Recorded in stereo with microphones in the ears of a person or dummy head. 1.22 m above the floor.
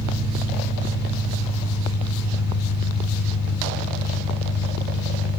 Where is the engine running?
30° left (ahead or behind), 2.5 m.